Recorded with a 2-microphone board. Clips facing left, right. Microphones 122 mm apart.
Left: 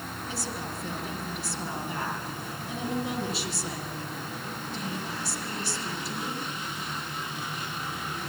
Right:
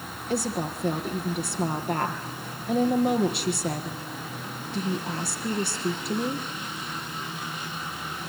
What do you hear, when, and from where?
0.3 s a woman speaking: 60° right (ahead or behind), 4.5 m